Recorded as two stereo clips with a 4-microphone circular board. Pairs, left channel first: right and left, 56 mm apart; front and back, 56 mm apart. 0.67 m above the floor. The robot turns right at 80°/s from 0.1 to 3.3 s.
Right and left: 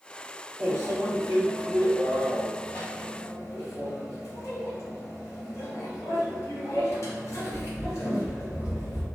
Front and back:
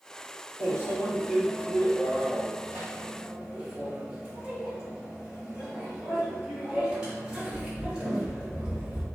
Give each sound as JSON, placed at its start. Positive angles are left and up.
{"t": 0.6, "sound": "a microwave", "azimuth_deg": 35, "distance_m": 0.9}